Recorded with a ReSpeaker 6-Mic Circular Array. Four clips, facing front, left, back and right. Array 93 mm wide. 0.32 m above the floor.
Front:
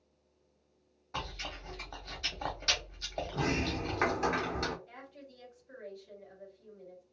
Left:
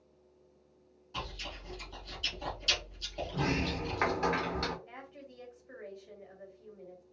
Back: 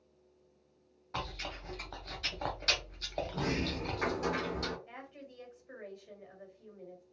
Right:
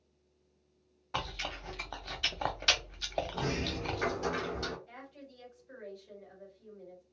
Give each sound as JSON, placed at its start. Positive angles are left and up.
{"t": 1.1, "sound": "chewing", "azimuth_deg": -100, "distance_m": 0.7}
{"t": 3.3, "sound": "a sliding door", "azimuth_deg": 45, "distance_m": 0.7}
{"t": 4.9, "sound": "a woman speaking", "azimuth_deg": 145, "distance_m": 1.7}